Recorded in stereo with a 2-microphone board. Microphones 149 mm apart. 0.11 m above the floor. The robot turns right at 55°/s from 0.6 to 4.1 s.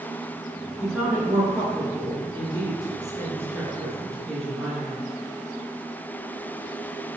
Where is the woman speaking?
Centre (ahead or behind), 1.3 m; by 5.0 s 5° left (ahead or behind), 1.3 m.